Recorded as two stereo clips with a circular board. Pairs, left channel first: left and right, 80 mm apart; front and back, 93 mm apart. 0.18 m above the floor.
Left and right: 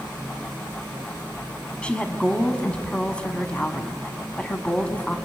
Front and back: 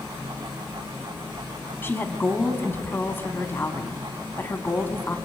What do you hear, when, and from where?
1.8 s a woman speaking: 30° left, 1.3 m